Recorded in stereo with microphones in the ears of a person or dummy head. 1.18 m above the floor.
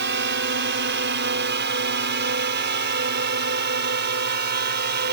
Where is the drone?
50° right (ahead or behind); by 5.1 s 45° right (ahead or behind).